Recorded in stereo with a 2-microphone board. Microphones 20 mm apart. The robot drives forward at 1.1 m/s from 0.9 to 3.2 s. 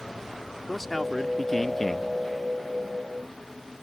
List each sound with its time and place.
0.7 s a man speaking: 5° left (ahead or behind); by 2.1 s 15° left (ahead or behind)